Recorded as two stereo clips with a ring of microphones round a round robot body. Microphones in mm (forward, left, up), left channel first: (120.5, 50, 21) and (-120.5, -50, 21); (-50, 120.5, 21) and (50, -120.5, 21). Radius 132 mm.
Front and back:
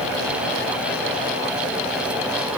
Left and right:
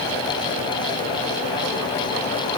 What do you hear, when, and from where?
Only background noise.